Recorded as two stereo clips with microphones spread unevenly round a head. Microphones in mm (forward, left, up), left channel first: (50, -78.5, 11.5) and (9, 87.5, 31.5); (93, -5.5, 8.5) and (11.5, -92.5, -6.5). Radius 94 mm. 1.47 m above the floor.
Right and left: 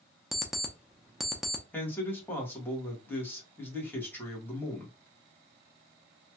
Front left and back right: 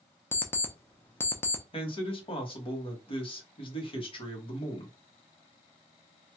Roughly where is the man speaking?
Ahead.